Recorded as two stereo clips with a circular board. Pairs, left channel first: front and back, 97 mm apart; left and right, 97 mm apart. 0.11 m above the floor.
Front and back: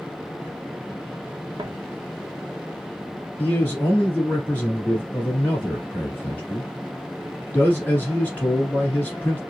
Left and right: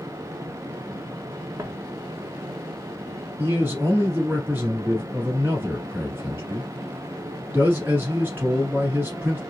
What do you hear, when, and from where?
1.6 s footsteps: 150° right, 0.8 m
3.4 s a man speaking: 50° right, 1.5 m